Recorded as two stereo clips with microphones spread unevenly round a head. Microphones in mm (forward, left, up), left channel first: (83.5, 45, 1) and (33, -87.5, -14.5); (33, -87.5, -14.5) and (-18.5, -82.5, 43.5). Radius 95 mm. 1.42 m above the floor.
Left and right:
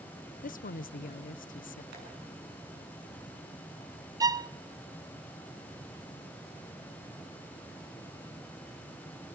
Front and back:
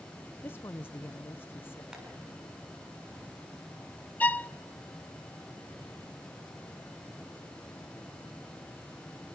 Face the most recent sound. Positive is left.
turn(degrees=-45)